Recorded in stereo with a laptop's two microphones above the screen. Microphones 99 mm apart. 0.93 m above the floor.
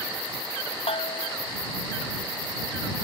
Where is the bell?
75° left (ahead or behind).